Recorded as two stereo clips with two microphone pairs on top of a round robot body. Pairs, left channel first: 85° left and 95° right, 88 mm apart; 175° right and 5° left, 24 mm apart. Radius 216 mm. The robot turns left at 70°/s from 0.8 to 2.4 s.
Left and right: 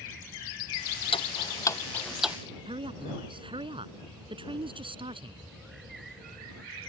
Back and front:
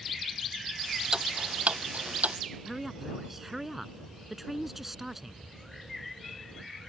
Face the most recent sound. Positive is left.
turn(degrees=-75)